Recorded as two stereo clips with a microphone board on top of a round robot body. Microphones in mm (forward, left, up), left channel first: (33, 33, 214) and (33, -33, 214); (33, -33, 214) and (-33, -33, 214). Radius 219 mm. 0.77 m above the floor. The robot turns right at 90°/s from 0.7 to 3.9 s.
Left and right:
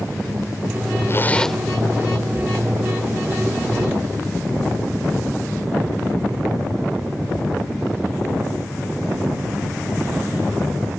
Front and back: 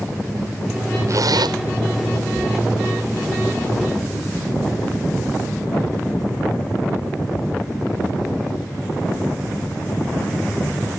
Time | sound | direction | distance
1.1 | a zipper | 140° left | ?